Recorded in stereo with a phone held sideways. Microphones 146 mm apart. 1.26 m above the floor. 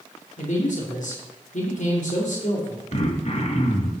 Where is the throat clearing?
50° left (ahead or behind), 1.4 m.